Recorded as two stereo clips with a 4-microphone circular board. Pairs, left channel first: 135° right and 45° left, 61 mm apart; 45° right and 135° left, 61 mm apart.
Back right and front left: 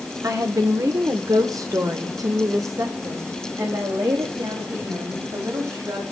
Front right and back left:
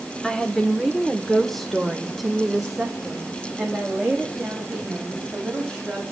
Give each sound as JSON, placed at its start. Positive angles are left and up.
{"t": 0.2, "sound": "a woman speaking", "azimuth_deg": 35, "distance_m": 2.0}